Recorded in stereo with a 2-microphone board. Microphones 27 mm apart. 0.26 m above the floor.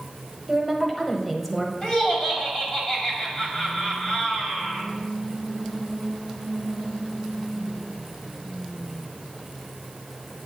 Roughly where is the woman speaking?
Centre.